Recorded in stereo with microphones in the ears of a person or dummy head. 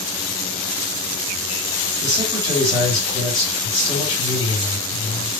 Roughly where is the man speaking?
Centre.